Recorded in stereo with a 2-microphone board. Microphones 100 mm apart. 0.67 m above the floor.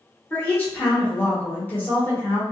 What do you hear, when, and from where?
0.3 s a woman speaking: 15° left (ahead or behind), 1.1 m